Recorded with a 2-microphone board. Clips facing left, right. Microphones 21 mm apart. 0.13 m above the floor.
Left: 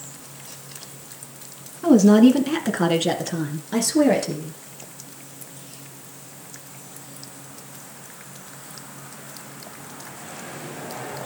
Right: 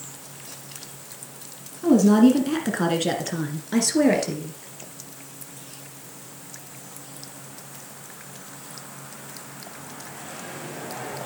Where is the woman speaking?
20° left (ahead or behind), 1.5 m; by 4.5 s 15° right (ahead or behind), 2.5 m.